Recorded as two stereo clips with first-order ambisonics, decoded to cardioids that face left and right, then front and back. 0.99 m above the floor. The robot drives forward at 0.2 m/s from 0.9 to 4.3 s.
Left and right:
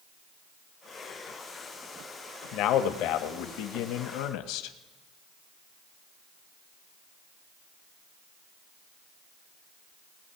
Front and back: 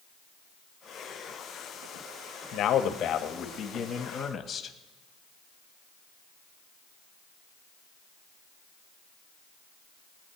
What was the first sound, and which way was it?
A man speaking, 55° left.